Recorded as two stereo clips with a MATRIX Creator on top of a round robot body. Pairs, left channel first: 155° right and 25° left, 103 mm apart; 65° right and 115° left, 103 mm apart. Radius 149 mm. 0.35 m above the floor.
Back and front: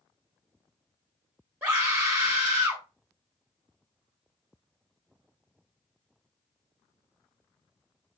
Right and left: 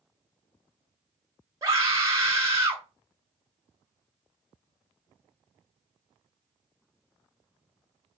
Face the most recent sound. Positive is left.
turn(degrees=80)